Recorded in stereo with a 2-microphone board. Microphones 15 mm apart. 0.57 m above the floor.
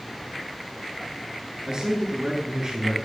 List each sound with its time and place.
1.7 s a man speaking: 55° right (ahead or behind), 6 m; by 3.0 s 50° right (ahead or behind), 7 m